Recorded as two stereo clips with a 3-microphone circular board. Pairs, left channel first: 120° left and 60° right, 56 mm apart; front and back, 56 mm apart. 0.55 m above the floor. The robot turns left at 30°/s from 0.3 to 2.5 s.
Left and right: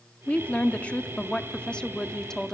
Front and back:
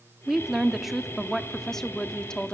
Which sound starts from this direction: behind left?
A woman speaking, at 0.3 s.